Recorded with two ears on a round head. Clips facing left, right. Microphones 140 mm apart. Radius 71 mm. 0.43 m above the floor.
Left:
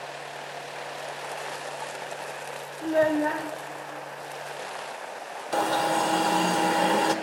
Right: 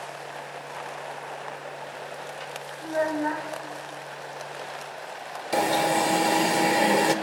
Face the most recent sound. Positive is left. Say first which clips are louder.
# right 2 dB
turn(degrees=-15)  # may be behind; listen again after turning